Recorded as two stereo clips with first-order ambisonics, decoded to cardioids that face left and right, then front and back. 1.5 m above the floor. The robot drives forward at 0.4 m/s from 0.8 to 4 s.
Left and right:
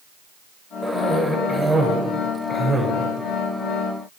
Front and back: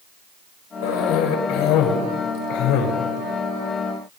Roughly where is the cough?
Ahead.